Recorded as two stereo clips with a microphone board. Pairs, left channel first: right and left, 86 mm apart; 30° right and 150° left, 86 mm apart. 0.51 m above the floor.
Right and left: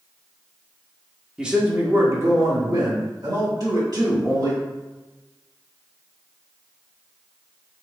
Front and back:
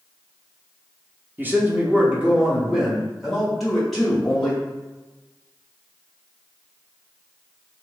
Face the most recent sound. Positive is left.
turn(degrees=55)